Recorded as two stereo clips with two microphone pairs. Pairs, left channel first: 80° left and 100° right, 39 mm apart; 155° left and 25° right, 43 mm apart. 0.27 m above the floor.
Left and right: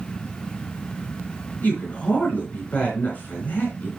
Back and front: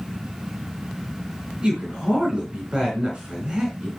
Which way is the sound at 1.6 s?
50° left.